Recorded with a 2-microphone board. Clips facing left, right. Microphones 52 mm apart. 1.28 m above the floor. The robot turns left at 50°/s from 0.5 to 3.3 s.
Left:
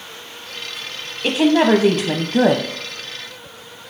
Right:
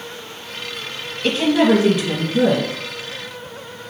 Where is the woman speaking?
160° left, 0.7 m; by 2.6 s 90° left, 0.7 m.